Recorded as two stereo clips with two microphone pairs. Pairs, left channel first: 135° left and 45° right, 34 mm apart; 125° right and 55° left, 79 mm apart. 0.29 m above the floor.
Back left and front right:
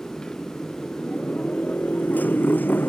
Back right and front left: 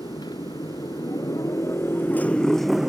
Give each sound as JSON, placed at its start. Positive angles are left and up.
{"t": 0.0, "sound": "a motorcycle", "azimuth_deg": -155}